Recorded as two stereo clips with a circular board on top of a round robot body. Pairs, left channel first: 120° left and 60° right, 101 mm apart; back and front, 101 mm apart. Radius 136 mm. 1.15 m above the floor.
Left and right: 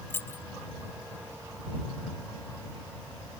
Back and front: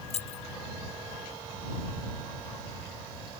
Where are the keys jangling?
170° right.